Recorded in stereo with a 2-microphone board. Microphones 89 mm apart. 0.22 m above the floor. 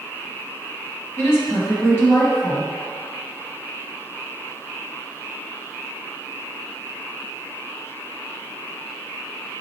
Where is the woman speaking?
30° left (ahead or behind), 1.3 m.